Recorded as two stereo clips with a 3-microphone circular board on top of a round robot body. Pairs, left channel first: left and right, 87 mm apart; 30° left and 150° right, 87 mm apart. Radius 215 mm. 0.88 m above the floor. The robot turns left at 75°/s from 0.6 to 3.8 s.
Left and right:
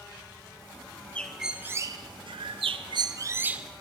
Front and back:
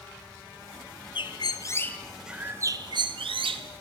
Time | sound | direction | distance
1.1 | a bird | 15° left | 0.9 m